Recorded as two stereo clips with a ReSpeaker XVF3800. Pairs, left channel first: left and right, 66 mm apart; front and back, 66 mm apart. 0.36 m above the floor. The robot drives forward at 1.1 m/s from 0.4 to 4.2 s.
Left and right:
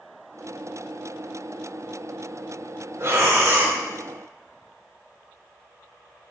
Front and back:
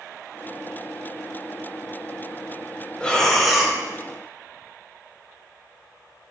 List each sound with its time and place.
3.0 s breathing: 70° right, 1.9 m; by 3.8 s 105° right, 1.8 m